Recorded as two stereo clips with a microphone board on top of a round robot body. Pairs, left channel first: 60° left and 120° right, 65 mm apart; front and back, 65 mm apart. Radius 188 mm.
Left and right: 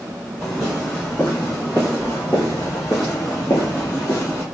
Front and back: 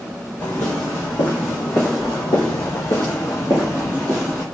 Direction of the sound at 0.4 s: 15° right.